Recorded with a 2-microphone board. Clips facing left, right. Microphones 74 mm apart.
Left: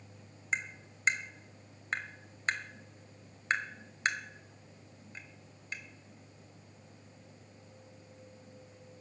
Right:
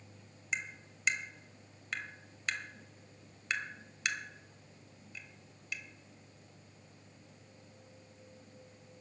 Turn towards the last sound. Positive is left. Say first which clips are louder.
# left 3 dB
turn(degrees=35)  # may be behind; listen again after turning